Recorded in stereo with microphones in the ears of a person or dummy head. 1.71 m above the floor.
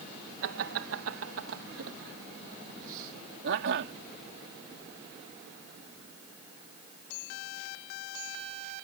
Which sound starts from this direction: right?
Laughter, at 0.4 s.